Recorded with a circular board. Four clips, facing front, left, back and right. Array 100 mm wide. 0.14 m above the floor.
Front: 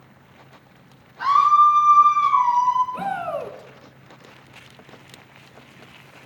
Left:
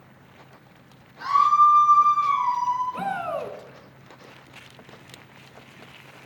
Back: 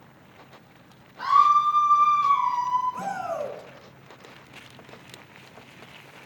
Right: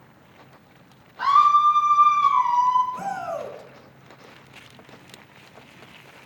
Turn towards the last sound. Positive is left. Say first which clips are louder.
# left 1 dB, front 3 dB
turn(degrees=45)